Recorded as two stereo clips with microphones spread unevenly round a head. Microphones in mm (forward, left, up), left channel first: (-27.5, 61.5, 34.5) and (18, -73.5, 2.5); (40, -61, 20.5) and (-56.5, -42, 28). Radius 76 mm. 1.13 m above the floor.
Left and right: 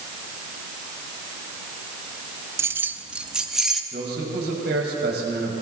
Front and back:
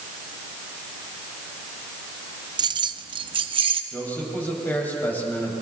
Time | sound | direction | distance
2.6 | keys jangling | 145° right | 0.6 m
3.9 | a man speaking | 85° right | 6 m